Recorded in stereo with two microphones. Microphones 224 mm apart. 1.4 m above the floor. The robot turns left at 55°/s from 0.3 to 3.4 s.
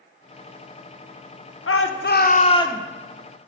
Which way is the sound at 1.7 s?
70° left.